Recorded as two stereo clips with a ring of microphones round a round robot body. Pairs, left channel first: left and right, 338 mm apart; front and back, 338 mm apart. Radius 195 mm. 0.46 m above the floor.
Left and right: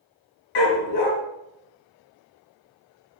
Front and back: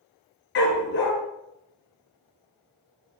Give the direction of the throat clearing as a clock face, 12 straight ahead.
I don't hear throat clearing.